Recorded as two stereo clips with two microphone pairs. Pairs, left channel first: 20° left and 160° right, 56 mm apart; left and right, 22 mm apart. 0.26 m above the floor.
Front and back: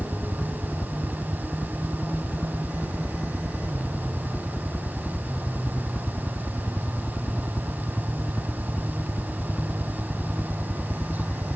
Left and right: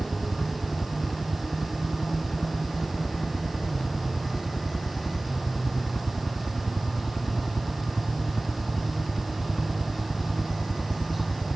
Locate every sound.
0.0 s a helicopter: 75° left; by 11.6 s 90° left